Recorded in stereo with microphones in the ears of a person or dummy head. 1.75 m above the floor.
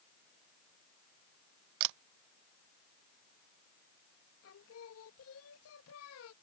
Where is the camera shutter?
60° right (ahead or behind).